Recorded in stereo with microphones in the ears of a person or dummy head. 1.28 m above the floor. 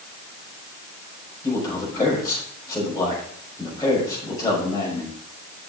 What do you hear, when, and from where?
1.4 s a man speaking: 25° left (ahead or behind), 5.5 m